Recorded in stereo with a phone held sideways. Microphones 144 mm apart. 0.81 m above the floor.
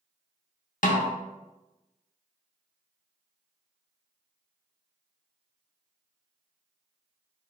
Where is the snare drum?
65° left (ahead or behind), 0.6 m.